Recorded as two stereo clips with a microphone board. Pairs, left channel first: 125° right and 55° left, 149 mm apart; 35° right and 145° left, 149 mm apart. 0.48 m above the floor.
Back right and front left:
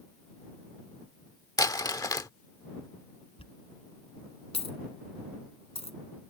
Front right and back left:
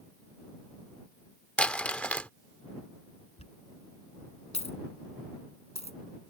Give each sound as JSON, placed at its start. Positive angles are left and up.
{"t": 1.6, "sound": "crumpling", "azimuth_deg": -105}
{"t": 3.4, "sound": "a dropped coin", "azimuth_deg": -75}